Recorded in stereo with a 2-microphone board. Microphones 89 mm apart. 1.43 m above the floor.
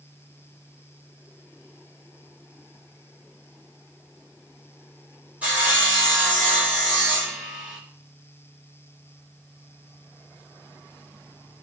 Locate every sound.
5.4 s sawing: 15° right (ahead or behind), 3.5 m